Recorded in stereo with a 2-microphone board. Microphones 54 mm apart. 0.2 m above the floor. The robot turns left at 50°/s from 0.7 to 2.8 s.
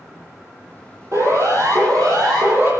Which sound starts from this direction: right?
A siren, at 1.1 s.